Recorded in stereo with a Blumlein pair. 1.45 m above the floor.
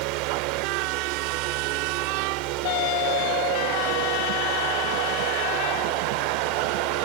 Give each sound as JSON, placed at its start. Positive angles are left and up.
{"t": 0.0, "sound": "a fan", "azimuth_deg": -40}